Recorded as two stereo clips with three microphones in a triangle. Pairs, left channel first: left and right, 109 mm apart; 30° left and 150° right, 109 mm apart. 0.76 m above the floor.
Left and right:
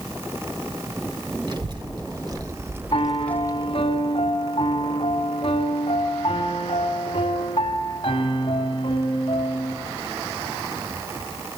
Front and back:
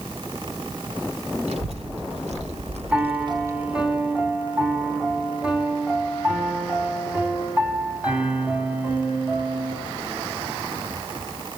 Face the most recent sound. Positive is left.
turn(degrees=130)